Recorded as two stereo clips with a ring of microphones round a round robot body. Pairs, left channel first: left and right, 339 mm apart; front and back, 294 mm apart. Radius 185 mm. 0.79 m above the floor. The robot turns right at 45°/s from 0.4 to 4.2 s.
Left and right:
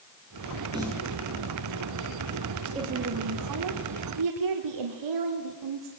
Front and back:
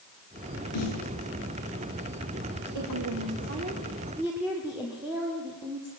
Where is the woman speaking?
160° right, 2.5 m; by 5.9 s 95° right, 2.5 m.